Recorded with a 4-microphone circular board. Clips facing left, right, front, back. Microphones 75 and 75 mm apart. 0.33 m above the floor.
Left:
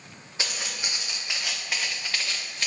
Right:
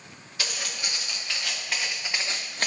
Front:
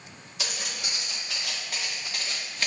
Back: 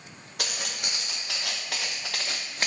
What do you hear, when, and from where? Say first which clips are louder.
0.4 s footsteps: even, back 1 dB; 155° left, 3.5 m; by 2.7 s 125° right, 1.2 m